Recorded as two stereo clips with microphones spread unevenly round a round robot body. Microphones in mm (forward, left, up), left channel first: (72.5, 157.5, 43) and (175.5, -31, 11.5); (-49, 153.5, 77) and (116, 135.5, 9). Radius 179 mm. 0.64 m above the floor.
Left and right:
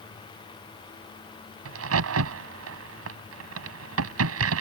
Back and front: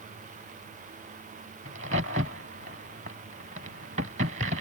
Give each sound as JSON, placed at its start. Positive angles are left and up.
{"t": 1.6, "sound": "a crack", "azimuth_deg": -65}